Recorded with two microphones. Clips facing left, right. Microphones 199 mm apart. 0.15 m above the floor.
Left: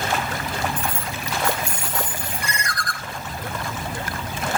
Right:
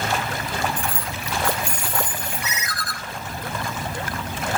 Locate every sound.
0.8 s keys jangling: 20° left (ahead or behind), 0.8 m
2.4 s a ringtone: 5° right (ahead or behind), 0.7 m